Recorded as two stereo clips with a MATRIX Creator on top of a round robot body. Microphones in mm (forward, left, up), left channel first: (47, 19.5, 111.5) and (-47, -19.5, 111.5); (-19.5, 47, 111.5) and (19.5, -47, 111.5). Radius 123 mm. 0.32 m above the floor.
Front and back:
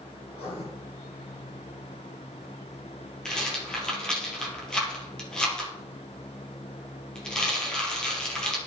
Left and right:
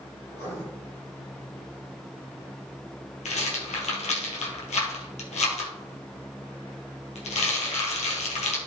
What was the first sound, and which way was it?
Writing, 50° left.